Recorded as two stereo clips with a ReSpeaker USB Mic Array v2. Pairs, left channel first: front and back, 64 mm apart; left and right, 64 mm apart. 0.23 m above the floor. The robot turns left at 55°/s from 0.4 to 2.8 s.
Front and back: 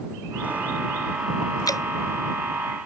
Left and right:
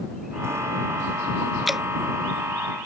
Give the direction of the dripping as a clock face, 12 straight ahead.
12 o'clock.